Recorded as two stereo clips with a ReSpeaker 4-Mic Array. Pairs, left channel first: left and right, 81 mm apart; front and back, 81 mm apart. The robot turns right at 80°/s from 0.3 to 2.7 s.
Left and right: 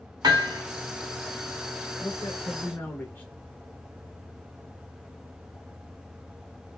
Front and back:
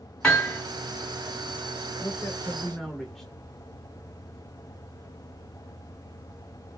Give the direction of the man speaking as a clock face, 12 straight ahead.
11 o'clock.